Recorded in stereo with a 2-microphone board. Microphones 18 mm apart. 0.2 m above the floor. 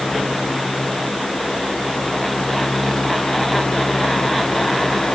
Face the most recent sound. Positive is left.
No sound to turn to.